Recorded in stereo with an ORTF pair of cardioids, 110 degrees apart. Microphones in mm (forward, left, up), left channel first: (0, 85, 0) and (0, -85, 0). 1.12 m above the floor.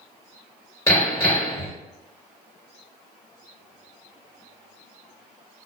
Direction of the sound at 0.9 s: 15° left.